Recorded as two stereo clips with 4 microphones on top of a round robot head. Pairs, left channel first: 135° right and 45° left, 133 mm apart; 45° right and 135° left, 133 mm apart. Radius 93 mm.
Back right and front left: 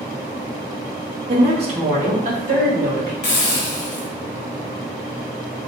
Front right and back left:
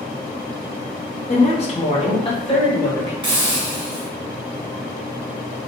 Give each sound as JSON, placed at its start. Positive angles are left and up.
{"t": 1.3, "sound": "a woman speaking", "azimuth_deg": -5, "distance_m": 1.1}
{"t": 3.2, "sound": "a hiss", "azimuth_deg": -170, "distance_m": 1.2}